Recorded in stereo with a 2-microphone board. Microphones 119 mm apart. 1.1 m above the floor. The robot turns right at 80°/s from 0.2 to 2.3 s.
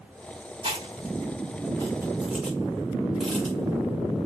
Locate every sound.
0.6 s chewing: 50° right (ahead or behind), 2 m; by 4.3 s 5° left (ahead or behind), 2 m